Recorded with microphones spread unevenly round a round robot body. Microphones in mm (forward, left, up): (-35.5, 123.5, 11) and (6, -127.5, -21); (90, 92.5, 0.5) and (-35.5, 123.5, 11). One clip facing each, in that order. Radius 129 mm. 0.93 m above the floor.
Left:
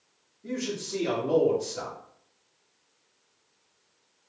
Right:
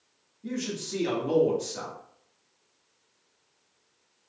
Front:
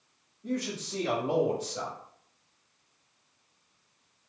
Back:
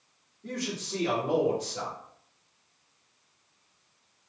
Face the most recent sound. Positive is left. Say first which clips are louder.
# left 1 dB, front 2 dB
turn(degrees=-105)